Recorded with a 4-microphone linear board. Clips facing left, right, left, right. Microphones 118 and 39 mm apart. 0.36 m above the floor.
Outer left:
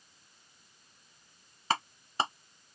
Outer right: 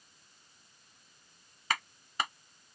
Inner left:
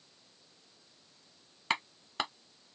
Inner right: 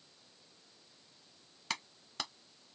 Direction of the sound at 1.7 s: 30° left (ahead or behind).